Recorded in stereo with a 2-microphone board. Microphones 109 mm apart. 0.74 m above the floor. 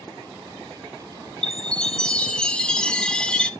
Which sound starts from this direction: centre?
A chime, at 1.4 s.